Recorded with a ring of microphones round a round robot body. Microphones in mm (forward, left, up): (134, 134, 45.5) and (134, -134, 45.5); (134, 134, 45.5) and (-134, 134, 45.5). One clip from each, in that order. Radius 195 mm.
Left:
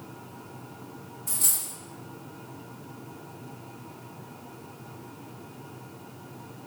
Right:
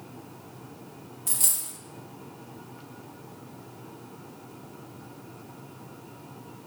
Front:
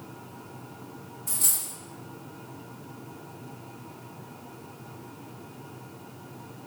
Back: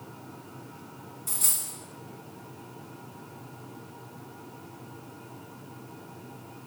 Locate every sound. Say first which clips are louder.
1.3 s a dropped coin: even, front 1 dB; 90° right, 1.3 m